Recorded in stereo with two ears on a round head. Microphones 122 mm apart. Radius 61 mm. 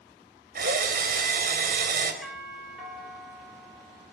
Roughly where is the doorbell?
Centre.